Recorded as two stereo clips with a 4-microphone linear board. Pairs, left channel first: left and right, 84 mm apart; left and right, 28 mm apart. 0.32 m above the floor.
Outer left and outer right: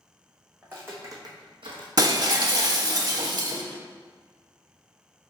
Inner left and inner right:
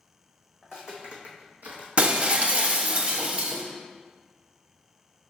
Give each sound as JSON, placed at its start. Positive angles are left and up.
{"t": 0.6, "sound": "footsteps", "side_deg": -20, "distance_m": 1.7}
{"t": 2.0, "sound": "breaking glass", "side_deg": -50, "distance_m": 0.6}